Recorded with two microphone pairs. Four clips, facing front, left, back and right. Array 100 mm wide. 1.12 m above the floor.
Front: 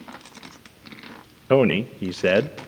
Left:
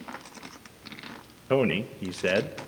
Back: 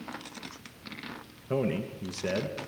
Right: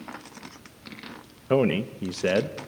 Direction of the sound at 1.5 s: 10° right.